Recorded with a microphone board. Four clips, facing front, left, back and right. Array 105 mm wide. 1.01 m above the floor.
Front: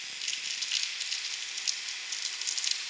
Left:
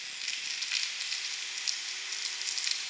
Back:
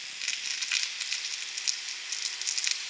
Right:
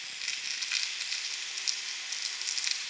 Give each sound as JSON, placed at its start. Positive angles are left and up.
{"t": 0.2, "sound": "crumpling", "azimuth_deg": -170, "distance_m": 0.9}